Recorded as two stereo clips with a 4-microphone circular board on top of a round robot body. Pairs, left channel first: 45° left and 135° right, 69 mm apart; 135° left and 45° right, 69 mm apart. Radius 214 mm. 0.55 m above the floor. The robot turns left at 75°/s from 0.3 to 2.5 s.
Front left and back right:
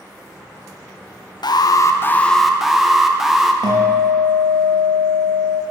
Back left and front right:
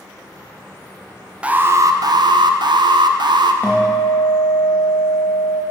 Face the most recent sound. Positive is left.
turn(degrees=-155)